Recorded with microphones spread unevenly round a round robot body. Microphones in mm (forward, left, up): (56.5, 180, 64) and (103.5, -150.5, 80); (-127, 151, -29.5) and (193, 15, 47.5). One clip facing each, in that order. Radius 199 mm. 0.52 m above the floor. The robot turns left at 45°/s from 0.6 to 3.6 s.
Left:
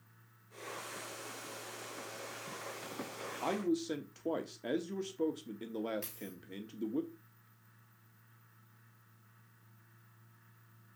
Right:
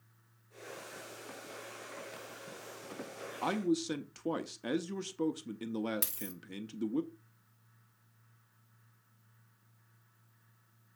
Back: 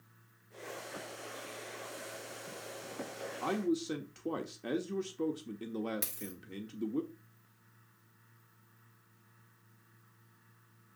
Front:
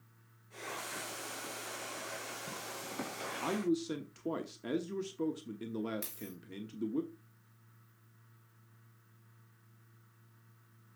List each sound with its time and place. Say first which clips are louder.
3.4 s a man speaking: right 2 dB, even; 125° right, 0.8 m; by 7.0 s 135° right, 0.8 m
6.0 s a dropped coin: right 1 dB, back 1 dB; 115° right, 0.6 m